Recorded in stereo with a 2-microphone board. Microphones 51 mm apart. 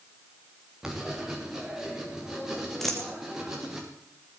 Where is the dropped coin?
5° left (ahead or behind), 2.5 m.